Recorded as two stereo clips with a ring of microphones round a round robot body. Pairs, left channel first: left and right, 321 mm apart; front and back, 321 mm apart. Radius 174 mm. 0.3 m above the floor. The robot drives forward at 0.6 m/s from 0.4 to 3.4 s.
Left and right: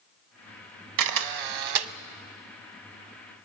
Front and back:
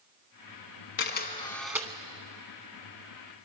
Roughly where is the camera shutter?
Ahead right.